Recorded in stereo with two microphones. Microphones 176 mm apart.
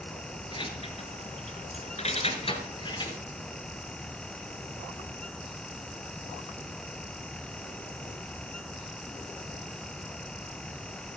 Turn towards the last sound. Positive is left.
turn(degrees=25)  # may be behind; listen again after turning